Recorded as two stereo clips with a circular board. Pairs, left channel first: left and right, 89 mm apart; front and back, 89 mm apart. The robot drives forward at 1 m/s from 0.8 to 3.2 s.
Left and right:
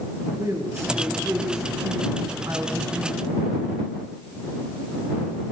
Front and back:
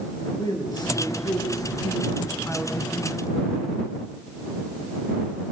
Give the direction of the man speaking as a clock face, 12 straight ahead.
1 o'clock.